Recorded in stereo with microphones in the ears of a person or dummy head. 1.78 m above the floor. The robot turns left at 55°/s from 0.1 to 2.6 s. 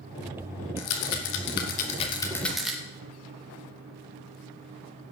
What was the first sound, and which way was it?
A rattle, 80° left.